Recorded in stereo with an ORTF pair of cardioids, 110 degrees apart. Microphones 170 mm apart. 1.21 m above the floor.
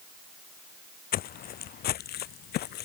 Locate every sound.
1.1 s footsteps: 60° left; by 2.9 s 75° left